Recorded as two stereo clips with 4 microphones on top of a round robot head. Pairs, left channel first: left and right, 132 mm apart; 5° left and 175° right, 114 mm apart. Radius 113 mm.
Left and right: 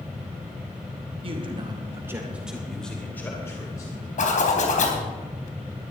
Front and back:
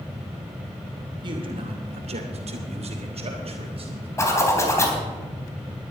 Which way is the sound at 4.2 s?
70° left.